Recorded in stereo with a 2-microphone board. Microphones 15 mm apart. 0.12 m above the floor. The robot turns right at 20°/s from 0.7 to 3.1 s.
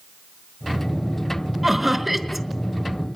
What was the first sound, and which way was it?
Laughter, 20° right (ahead or behind).